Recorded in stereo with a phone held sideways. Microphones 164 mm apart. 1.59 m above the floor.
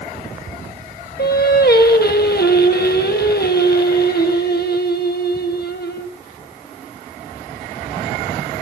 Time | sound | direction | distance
1.2 | singing | 75° left (ahead or behind) | 1.3 m